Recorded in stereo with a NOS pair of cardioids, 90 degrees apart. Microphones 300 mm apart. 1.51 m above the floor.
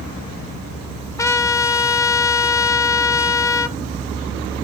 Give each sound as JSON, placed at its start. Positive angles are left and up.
{"t": 1.2, "sound": "a trumpet", "azimuth_deg": 10, "distance_m": 0.9}